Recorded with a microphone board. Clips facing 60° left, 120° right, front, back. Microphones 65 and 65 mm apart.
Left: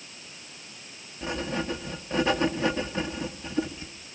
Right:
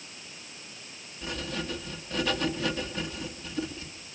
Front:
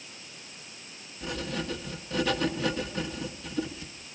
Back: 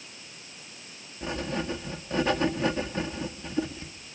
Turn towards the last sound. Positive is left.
turn(degrees=120)